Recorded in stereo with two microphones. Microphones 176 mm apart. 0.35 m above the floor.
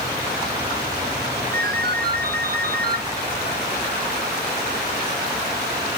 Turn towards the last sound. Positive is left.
turn(degrees=-65)  # may be behind; listen again after turning